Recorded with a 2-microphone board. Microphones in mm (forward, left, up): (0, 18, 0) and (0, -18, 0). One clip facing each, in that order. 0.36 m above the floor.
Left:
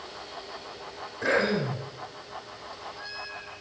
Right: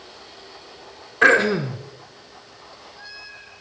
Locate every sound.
1.2 s throat clearing: 80° right, 1.6 m